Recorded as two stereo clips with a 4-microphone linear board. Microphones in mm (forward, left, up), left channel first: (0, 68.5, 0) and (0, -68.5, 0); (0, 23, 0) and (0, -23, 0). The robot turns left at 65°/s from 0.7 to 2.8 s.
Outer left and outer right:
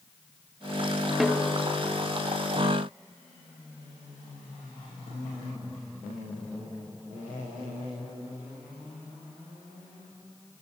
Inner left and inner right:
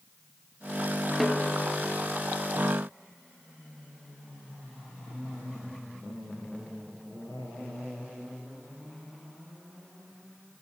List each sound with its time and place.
1.2 s a snare drum: centre (ahead or behind); by 1.6 s 25° left (ahead or behind)